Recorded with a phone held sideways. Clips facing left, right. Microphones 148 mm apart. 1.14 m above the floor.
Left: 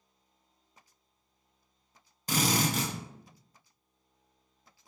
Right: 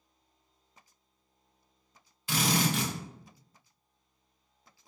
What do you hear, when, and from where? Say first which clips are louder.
2.3 s a drill: even; 40° left (ahead or behind), 0.6 m